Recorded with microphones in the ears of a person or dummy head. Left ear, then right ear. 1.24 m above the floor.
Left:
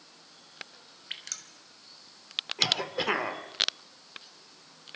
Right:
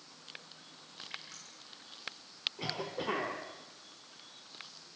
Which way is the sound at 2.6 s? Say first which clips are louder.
Left 11 dB; 65° left (ahead or behind).